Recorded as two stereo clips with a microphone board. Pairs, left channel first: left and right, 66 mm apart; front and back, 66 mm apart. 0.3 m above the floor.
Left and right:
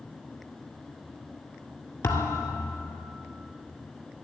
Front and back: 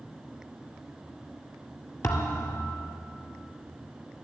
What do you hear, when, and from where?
2.0 s a thud: 40° left, 1.6 m